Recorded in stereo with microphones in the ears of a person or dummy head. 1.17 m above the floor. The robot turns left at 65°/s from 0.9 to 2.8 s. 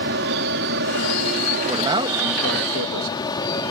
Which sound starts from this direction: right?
An aircraft, at 0.0 s.